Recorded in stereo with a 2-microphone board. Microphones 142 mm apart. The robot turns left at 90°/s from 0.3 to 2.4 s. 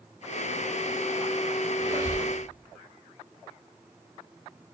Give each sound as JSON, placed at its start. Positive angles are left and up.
{"t": 1.8, "sound": "a squeak", "azimuth_deg": -55, "distance_m": 1.5}